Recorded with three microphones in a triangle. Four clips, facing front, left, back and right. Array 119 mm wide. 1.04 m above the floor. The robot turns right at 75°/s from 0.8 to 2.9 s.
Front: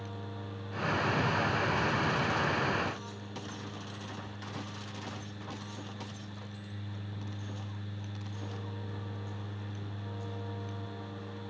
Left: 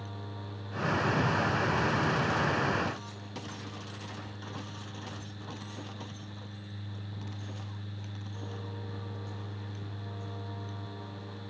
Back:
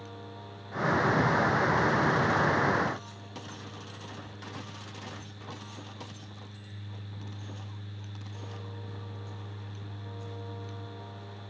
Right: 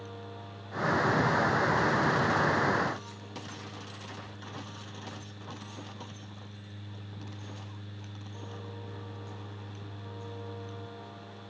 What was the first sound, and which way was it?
Only background noise.